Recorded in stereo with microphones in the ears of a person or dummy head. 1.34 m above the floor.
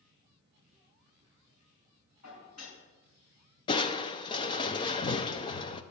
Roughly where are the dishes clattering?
Left.